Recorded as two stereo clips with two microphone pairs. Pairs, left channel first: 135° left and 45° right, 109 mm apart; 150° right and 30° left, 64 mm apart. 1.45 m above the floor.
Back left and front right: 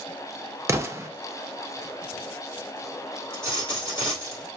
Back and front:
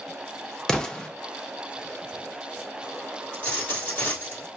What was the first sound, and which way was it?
An explosion, 80° right.